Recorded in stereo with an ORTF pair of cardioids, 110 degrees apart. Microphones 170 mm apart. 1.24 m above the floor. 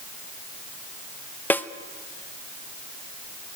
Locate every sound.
1.5 s a snare drum: 10° left, 0.9 m